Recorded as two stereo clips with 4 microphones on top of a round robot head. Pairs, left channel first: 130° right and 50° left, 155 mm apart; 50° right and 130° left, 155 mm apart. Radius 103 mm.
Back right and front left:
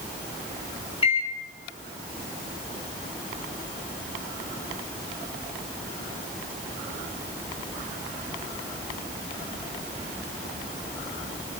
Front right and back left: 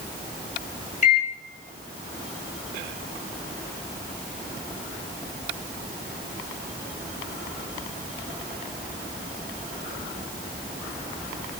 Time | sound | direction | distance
1.0 | a microwave | 80° right | 1.3 m